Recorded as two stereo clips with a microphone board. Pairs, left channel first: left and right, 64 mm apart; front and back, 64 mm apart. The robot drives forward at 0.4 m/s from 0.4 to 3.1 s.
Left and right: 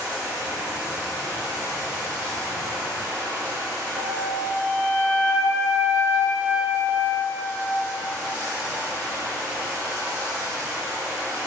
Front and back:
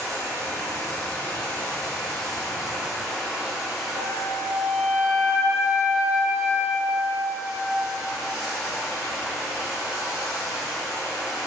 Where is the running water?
35° right, 1.3 m; by 11.5 s 110° right, 1.0 m.